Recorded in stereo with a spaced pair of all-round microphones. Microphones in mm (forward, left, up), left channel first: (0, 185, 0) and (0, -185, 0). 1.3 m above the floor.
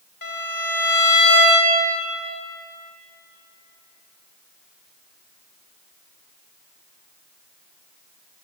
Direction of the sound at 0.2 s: 65° left (ahead or behind).